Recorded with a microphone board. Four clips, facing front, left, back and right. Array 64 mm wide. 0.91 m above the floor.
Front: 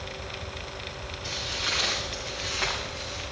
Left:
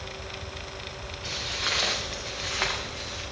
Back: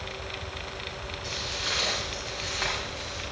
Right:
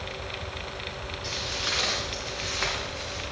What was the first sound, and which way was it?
Footsteps, 85° left.